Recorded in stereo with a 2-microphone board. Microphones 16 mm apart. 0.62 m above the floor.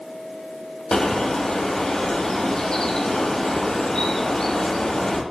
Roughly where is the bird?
Left.